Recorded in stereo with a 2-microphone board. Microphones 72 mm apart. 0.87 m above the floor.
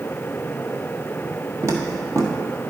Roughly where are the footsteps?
Right.